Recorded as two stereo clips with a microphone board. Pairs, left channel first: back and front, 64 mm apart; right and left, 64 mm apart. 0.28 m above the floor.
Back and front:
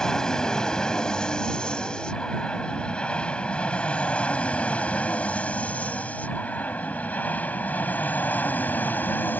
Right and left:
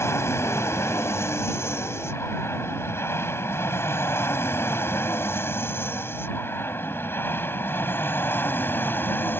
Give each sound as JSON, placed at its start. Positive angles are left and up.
{"t": 0.0, "sound": "an aircraft", "azimuth_deg": -105}